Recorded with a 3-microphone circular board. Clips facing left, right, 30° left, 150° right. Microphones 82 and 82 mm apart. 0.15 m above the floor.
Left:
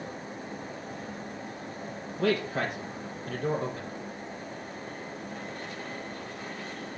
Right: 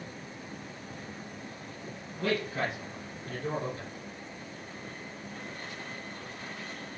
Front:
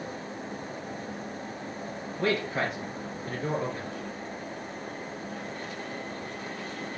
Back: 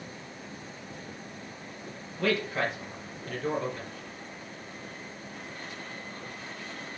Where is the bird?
I don't hear a bird.